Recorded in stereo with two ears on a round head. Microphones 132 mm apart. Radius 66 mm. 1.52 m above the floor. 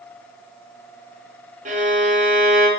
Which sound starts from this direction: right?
A violin, at 1.6 s.